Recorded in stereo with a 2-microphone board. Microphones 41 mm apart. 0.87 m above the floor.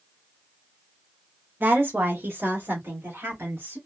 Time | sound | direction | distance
1.6 | a woman speaking | 65° right (ahead or behind) | 1.4 m